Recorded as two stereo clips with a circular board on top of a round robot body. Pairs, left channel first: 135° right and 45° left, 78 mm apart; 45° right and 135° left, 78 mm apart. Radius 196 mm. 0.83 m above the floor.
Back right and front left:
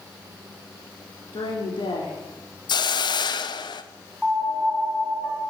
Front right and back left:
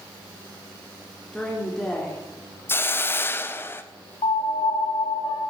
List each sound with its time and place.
1.3 s a woman speaking: 125° right, 3 m
2.7 s a hiss: 110° right, 0.7 m
4.2 s a piano: 45° right, 3 m